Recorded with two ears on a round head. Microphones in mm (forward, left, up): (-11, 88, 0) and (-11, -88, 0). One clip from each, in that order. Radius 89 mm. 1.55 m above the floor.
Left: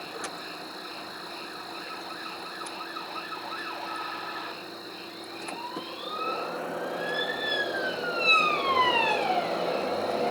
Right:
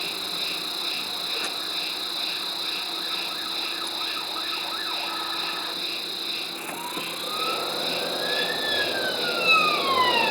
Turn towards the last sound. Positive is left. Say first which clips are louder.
# right 8 dB
turn(degrees=-85)